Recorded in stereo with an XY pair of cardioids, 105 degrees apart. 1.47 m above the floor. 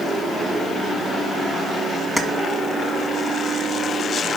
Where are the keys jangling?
15° left, 1.6 m.